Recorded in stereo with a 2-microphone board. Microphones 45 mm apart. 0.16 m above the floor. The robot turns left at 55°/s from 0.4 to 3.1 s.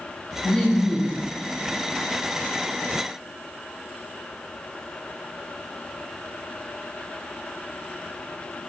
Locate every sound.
0.4 s laughter: 165° left, 2 m; by 1.2 s 125° left, 2 m